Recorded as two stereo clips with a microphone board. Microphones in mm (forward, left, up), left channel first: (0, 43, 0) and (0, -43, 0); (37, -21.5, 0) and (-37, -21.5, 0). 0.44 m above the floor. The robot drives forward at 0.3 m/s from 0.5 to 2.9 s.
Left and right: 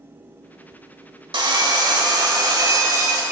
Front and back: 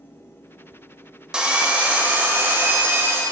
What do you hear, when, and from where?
1.3 s sawing: 105° right, 1.0 m; by 3.2 s 130° right, 1.1 m